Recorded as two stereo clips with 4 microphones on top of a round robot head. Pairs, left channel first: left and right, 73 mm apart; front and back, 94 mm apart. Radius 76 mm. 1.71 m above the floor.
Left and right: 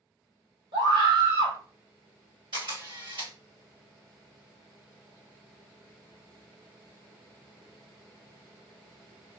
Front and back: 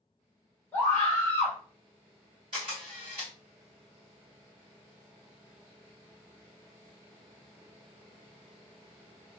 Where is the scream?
75° right, 1.4 m.